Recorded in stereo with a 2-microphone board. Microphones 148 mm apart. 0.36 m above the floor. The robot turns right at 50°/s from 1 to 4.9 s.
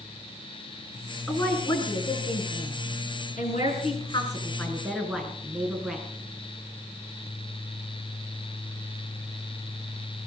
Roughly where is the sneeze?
I don't hear a sneeze.